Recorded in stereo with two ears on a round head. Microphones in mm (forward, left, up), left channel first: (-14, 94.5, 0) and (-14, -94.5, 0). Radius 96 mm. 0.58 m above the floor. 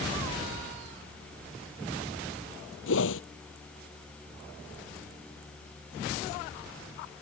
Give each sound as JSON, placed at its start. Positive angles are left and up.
{"t": 2.9, "sound": "a whoosh", "side_deg": 70}